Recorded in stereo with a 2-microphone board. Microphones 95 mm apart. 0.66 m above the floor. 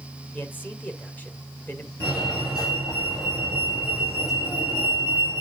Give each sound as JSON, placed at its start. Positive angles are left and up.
{"t": 0.3, "sound": "a man speaking", "side_deg": 20, "distance_m": 1.9}
{"t": 2.0, "sound": "a fire alarm", "side_deg": 45, "distance_m": 6.5}